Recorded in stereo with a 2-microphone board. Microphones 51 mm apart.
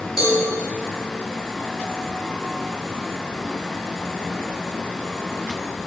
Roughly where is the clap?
No clap in this recording.